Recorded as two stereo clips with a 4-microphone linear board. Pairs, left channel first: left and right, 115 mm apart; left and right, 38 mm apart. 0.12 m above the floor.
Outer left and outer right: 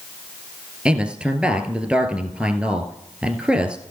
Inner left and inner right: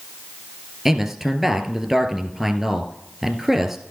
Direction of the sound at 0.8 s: 10° right (ahead or behind).